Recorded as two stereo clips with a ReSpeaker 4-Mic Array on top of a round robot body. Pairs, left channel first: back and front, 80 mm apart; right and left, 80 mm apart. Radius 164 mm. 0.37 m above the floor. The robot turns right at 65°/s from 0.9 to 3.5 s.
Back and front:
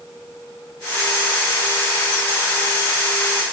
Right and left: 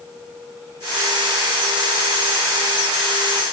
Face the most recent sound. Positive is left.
No sound to turn to.